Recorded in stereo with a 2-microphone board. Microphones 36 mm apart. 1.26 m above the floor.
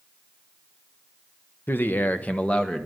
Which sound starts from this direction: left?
A man speaking, at 1.7 s.